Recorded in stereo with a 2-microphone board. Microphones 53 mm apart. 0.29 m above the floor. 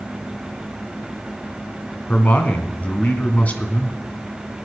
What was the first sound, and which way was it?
A man speaking, 30° left (ahead or behind).